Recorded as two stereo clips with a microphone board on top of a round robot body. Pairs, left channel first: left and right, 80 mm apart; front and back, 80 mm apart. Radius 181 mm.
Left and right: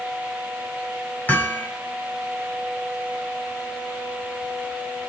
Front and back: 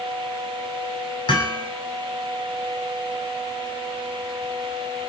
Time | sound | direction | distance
1.3 | hammering | 20° left | 6 m